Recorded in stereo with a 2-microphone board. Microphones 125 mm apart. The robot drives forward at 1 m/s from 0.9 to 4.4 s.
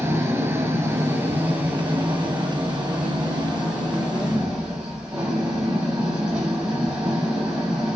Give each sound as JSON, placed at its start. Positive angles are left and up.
{"t": 0.0, "sound": "an engine running", "side_deg": -20, "distance_m": 2.5}